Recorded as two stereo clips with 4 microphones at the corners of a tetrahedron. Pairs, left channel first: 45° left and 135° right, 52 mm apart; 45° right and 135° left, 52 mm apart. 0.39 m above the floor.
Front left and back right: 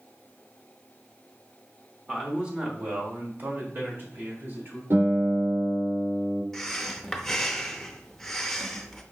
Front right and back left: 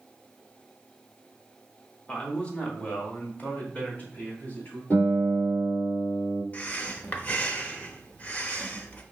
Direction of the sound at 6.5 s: 30° right.